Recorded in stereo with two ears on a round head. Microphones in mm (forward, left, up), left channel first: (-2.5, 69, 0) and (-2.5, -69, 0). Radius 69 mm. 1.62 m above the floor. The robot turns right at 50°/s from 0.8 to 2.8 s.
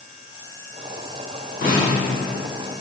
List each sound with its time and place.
1.6 s a snare drum: 60° left (ahead or behind), 1.2 m; by 2.0 s 50° left (ahead or behind), 1.2 m